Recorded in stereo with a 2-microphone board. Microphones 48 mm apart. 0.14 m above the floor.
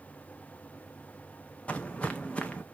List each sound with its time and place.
1.7 s footsteps: 25° left (ahead or behind), 0.5 m